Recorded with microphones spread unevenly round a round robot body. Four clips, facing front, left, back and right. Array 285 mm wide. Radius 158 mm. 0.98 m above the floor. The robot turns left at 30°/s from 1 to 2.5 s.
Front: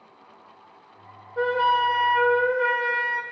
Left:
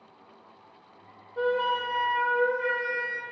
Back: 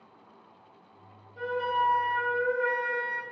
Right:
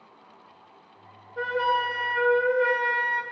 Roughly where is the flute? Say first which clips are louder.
Right 1 dB, front 7 dB; ahead.